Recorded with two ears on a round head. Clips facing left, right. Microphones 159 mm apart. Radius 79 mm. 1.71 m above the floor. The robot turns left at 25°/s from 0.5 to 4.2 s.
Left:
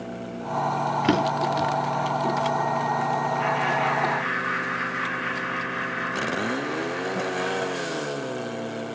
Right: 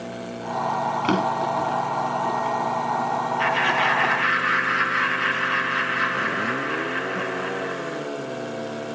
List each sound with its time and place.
1.0 s a drawer: 20° left (ahead or behind), 2.0 m; by 1.7 s 35° left (ahead or behind), 2.0 m
3.4 s laughter: 75° right (ahead or behind), 2 m; by 8.0 s 80° right, 2 m